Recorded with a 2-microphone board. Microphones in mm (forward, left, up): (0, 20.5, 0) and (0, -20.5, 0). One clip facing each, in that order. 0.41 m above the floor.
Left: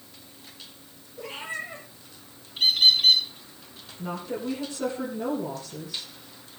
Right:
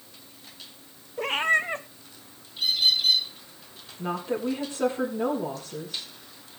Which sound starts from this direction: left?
A bird, at 2.6 s.